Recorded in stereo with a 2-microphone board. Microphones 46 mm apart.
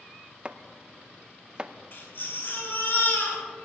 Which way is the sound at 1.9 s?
55° left (ahead or behind).